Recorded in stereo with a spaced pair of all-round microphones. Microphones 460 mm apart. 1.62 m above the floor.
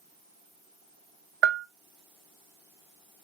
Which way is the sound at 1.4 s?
85° right.